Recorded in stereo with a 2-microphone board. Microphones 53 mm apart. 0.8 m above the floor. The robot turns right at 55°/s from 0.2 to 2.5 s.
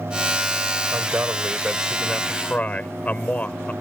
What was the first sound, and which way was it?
A man speaking, 60° right.